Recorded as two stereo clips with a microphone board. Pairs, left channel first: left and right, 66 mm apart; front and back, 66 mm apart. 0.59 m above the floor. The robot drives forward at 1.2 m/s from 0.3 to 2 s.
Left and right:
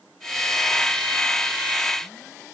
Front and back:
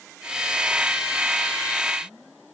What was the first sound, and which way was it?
Only background noise.